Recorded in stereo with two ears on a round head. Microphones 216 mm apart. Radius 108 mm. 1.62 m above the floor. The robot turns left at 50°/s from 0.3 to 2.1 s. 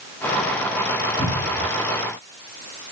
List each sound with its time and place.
1.2 s a cupboard door: 10° left (ahead or behind), 5 m; by 1.7 s 15° right (ahead or behind), 5 m